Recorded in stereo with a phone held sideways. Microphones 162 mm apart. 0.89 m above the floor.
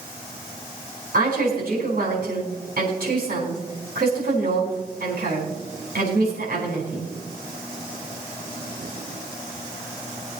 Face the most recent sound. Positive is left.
turn(degrees=-70)  # may be behind; listen again after turning